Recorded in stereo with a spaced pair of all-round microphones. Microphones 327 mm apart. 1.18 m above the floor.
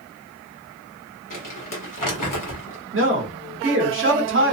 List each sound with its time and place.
1.3 s crumpling: 70° left (ahead or behind), 1.2 m
2.9 s a man speaking: 40° right (ahead or behind), 0.9 m